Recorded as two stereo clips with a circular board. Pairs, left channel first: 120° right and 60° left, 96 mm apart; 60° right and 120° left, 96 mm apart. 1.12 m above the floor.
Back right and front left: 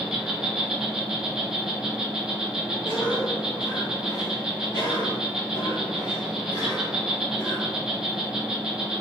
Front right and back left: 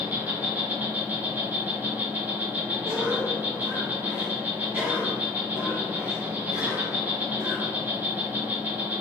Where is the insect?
130° left, 0.9 m.